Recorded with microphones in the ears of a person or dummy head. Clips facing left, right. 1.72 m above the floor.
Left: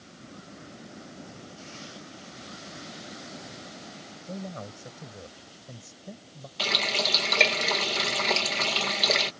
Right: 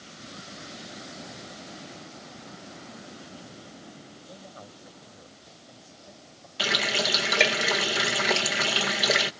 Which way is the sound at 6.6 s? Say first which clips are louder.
Right 2 dB; 15° right (ahead or behind).